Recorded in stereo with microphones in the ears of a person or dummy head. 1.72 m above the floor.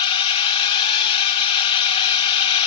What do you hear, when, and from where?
0.0 s a drone: 25° left (ahead or behind)